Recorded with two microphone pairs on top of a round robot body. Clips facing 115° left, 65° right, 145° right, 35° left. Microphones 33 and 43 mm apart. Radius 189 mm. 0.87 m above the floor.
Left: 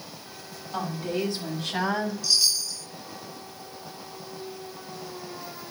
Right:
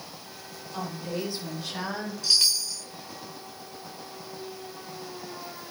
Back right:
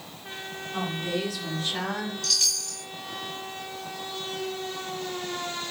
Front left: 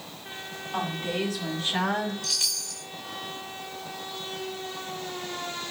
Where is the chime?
50° right, 0.8 m.